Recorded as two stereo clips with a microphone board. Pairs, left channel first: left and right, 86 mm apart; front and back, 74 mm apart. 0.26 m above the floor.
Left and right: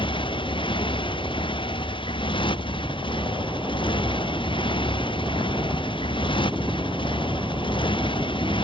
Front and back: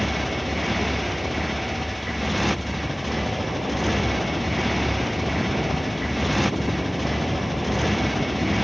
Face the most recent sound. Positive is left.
turn(degrees=90)